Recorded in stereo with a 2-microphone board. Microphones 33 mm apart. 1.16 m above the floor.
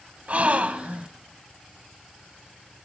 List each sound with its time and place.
0.3 s a gasp: 40° right (ahead or behind), 1.3 m